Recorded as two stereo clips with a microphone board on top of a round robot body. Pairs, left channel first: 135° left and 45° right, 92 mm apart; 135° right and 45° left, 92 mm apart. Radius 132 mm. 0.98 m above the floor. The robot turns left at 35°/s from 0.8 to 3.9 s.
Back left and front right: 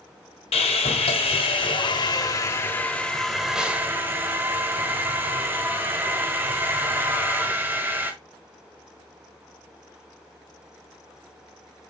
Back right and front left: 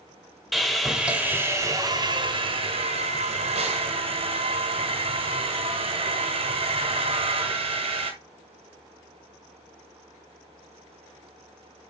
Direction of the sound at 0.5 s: 135° left.